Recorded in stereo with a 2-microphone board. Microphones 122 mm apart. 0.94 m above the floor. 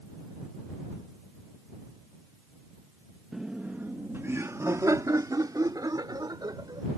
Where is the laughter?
5° right (ahead or behind); by 6.9 s 35° right (ahead or behind).